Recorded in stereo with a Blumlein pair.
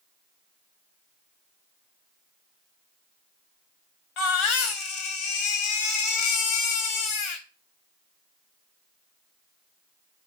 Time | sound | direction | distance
4.2 | a baby crying | 40° left | 0.8 m